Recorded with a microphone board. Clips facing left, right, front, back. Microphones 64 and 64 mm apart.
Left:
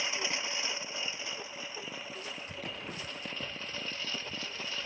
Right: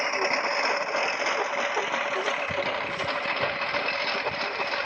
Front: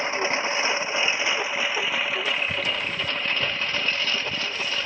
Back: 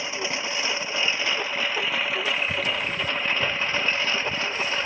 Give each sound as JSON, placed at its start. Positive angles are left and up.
{"t": 0.0, "sound": "a lawn mower", "azimuth_deg": -45}